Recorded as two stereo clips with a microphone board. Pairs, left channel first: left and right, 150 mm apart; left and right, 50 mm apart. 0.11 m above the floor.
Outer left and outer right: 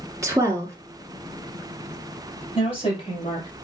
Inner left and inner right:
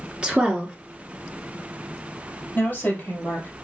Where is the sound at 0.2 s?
20° right (ahead or behind), 1.5 m.